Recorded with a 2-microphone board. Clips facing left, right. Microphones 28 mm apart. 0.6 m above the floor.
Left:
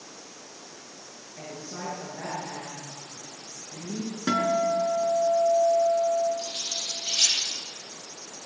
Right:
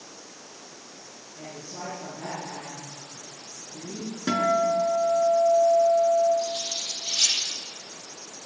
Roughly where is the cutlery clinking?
Left.